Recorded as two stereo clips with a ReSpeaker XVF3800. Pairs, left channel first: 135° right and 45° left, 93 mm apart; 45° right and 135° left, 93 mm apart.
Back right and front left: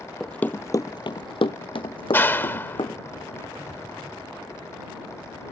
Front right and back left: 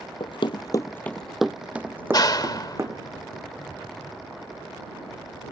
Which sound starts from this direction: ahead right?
Running footsteps, at 0.2 s.